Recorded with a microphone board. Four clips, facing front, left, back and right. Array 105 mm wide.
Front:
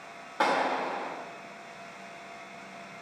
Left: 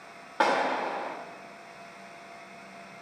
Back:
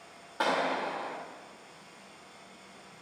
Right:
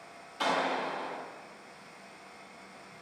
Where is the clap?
75° left, 3.5 m.